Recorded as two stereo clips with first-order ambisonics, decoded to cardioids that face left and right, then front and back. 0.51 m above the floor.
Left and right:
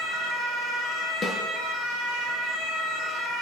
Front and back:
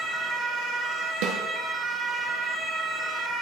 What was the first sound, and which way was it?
A snare drum, 175° left.